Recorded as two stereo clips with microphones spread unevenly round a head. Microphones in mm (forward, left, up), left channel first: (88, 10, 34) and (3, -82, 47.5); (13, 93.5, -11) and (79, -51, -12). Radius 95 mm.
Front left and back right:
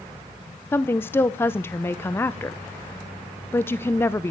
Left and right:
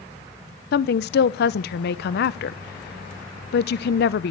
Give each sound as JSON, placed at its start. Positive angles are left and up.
{"t": 0.7, "sound": "a woman speaking", "azimuth_deg": 115, "distance_m": 0.6}